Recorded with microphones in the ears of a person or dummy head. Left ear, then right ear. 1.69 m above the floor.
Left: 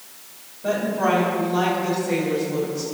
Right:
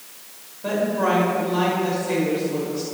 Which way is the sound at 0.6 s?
25° right (ahead or behind).